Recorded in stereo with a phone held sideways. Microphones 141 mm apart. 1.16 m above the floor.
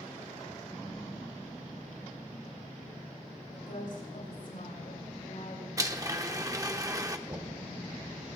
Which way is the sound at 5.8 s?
25° right (ahead or behind).